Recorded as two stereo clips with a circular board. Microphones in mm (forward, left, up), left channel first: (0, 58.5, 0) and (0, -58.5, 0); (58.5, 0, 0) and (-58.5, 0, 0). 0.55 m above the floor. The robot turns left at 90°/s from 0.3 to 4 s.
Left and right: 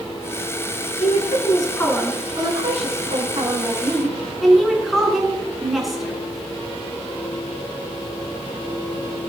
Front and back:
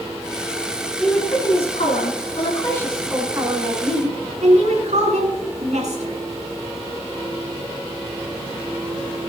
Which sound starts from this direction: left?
A woman speaking, at 1.0 s.